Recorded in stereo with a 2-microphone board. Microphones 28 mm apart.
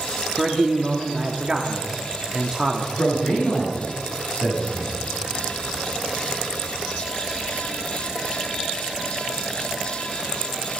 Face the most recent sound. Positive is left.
turn(degrees=65)  # may be behind; listen again after turning